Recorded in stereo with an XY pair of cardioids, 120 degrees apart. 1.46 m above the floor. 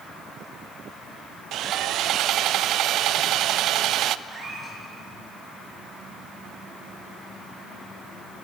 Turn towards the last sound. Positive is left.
turn(degrees=-30)